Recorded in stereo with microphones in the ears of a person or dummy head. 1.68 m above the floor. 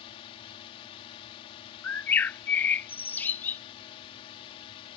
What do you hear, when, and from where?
0.0 s a drone: 30° left (ahead or behind)
1.8 s a bird: 10° left (ahead or behind)